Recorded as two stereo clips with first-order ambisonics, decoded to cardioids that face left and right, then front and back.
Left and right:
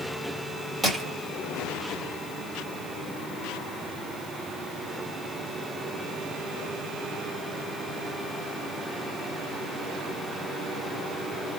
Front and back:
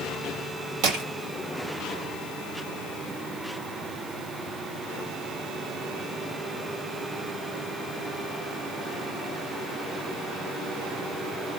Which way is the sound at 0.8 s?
165° right.